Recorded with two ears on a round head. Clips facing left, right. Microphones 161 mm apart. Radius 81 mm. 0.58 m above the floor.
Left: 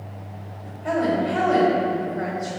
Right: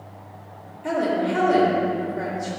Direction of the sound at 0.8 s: 60° right (ahead or behind).